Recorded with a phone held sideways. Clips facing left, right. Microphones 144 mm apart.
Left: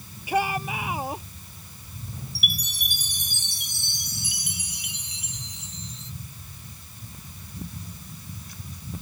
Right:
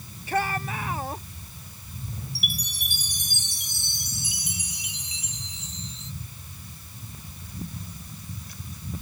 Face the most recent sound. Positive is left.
turn(degrees=65)  # may be behind; listen again after turning